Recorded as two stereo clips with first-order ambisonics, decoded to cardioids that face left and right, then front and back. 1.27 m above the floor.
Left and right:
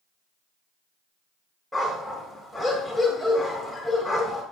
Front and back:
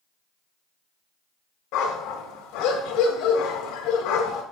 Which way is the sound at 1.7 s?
Straight ahead.